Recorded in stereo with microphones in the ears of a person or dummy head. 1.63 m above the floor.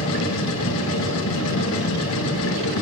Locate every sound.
0.0 s a machine running: 80° left, 1.7 m